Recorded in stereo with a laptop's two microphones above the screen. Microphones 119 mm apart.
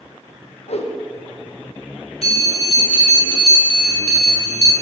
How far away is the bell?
About 1.6 m.